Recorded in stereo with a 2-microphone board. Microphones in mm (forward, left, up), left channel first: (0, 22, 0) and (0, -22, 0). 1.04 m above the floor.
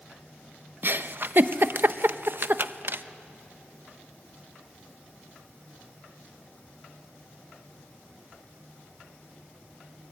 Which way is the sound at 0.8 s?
50° right (ahead or behind).